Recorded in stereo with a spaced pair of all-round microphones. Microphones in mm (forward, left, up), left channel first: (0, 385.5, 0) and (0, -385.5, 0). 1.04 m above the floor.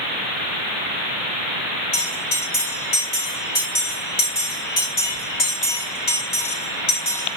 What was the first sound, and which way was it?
A bell, 70° left (ahead or behind).